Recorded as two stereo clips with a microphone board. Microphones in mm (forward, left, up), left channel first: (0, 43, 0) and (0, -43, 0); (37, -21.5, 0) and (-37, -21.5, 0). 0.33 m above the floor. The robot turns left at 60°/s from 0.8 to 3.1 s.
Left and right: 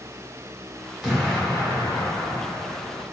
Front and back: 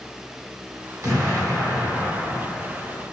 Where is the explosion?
175° right, 1.3 m; by 3.0 s 65° left, 1.3 m.